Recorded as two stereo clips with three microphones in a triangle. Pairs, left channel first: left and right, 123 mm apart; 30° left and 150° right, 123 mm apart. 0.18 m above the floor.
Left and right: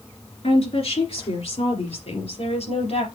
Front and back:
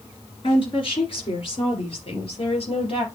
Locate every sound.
0.4 s a woman speaking: 70° left, 3 m; by 3.0 s 65° left, 4 m